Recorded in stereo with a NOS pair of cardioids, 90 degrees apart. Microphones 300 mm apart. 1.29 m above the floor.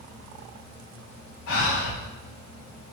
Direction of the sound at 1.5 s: 70° left.